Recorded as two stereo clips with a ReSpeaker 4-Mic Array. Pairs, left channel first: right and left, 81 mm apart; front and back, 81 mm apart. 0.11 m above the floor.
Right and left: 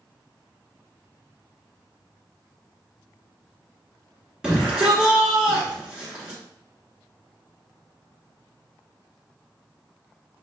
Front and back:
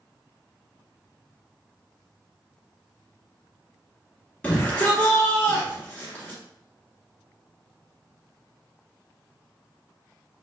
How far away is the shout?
About 1.3 m.